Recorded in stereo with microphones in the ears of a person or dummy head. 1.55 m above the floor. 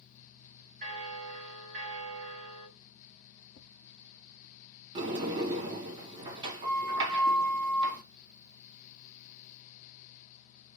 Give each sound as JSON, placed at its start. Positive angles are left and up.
{"t": 0.8, "sound": "a bell", "side_deg": -45, "distance_m": 2.0}
{"t": 3.6, "sound": "tapping", "side_deg": 65, "distance_m": 0.7}
{"t": 5.0, "sound": "a sliding door", "side_deg": -30, "distance_m": 2.5}